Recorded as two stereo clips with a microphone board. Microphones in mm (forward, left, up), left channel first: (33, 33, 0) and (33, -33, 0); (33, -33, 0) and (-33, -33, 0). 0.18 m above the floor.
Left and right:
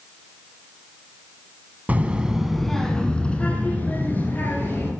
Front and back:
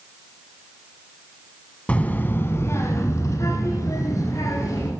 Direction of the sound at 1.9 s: 50° right.